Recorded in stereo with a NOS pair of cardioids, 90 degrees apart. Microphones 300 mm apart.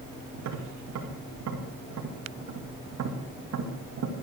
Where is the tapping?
55° right, 2.5 m.